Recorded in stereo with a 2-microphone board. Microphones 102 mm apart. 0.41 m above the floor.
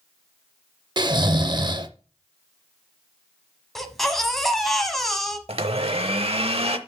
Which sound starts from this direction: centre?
A baby crying, at 3.8 s.